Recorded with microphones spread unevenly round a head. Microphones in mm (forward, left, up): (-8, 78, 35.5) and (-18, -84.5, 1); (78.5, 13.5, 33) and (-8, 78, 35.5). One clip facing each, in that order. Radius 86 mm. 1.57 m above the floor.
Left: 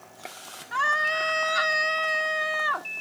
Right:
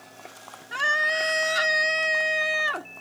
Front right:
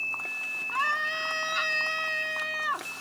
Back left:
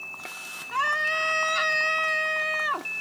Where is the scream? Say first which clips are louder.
Even, back left 3 dB; 155° right.